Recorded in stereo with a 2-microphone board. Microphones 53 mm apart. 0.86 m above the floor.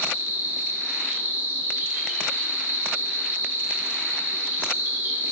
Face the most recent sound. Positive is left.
turn(degrees=-40)  # may be behind; listen again after turning